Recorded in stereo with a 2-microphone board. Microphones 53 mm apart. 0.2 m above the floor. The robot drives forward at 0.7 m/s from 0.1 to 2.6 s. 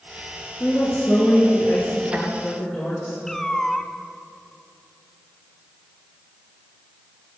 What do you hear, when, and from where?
0.6 s a woman speaking: 40° left (ahead or behind), 2.5 m; by 3.2 s 25° left (ahead or behind), 3.5 m
3.3 s a cat meowing: 10° left (ahead or behind), 0.7 m